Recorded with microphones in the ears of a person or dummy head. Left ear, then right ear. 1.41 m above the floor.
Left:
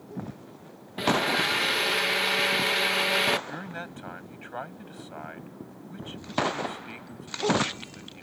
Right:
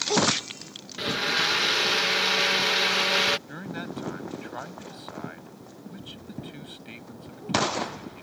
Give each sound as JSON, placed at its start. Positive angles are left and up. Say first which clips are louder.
{"t": 1.0, "sound": "a blender", "louder": "left 1 dB", "side_deg": 10}
{"t": 3.5, "sound": "a man speaking", "louder": "right 1 dB", "side_deg": 10}